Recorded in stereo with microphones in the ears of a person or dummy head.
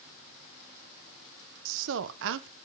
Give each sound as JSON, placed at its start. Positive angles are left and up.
{"t": 1.6, "sound": "a woman speaking", "side_deg": -70, "distance_m": 0.6}